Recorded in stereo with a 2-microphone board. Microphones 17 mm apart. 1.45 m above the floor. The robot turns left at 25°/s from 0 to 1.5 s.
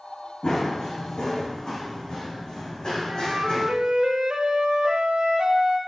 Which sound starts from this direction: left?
Running footsteps, at 0.4 s.